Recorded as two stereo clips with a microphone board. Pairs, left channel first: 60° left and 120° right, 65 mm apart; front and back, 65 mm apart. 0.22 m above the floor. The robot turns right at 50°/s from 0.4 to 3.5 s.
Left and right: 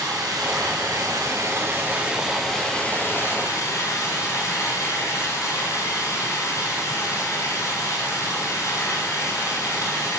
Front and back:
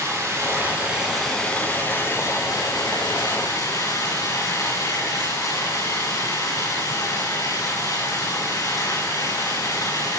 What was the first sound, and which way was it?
Running water, 130° right.